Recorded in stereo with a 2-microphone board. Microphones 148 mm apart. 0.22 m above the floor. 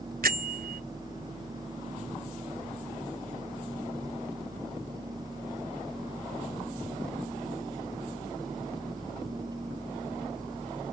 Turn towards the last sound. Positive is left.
turn(degrees=-80)